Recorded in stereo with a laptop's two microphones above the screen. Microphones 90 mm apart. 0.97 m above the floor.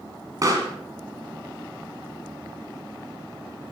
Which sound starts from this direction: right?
A pop, at 0.4 s.